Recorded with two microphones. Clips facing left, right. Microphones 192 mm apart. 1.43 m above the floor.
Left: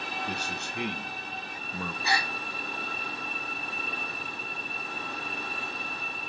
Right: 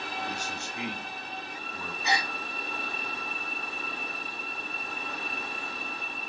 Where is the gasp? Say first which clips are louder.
Right 1 dB; 20° right (ahead or behind), 0.9 m.